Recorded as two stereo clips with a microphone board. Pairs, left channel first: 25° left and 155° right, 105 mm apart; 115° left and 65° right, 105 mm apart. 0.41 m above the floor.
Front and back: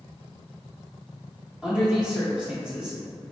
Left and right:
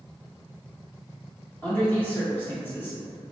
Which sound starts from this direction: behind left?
A man speaking, at 1.6 s.